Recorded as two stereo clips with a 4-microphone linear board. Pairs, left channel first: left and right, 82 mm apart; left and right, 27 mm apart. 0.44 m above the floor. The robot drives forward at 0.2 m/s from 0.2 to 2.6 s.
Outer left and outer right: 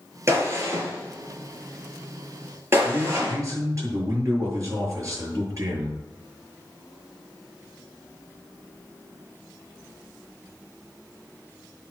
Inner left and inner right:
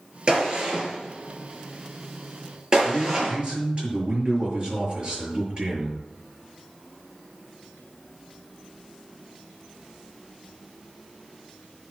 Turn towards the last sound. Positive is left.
turn(degrees=-40)  # may be behind; listen again after turning